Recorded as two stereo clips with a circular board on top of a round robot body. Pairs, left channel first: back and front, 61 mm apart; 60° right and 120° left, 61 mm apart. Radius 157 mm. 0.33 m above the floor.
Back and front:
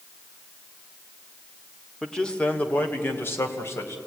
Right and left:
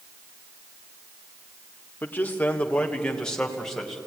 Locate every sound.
2.0 s a man speaking: 100° right, 1.9 m; by 4.0 s 140° right, 3.5 m